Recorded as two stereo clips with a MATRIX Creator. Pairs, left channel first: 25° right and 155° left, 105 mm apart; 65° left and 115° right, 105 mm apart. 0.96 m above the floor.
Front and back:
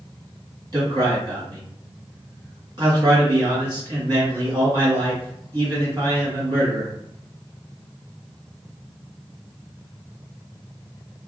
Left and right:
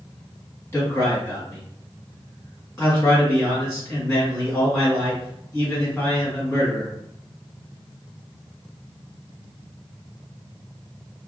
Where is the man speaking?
125° left, 1.6 m.